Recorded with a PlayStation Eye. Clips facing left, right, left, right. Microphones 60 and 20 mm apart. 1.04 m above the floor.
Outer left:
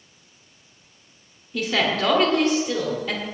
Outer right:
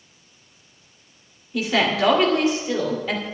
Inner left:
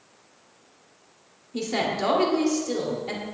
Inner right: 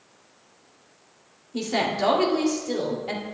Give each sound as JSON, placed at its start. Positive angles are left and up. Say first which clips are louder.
{"t": 1.5, "sound": "a woman speaking", "louder": "outer right 2 dB, inner right 1 dB", "side_deg": -5, "distance_m": 2.5}